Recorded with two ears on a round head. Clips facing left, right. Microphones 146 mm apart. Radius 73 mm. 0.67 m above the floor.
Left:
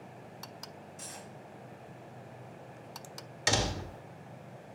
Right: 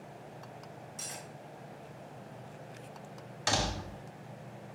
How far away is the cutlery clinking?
About 3 m.